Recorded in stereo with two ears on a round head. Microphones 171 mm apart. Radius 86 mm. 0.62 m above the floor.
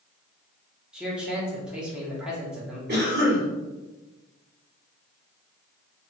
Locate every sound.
0.9 s a man speaking: 5° right (ahead or behind), 1.1 m
2.9 s a cough: 50° right (ahead or behind), 1.9 m